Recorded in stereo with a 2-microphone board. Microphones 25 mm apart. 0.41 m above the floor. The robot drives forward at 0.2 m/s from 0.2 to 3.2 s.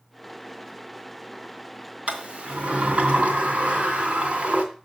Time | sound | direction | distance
2.1 | a sliding door | 70° right (ahead or behind) | 2.5 m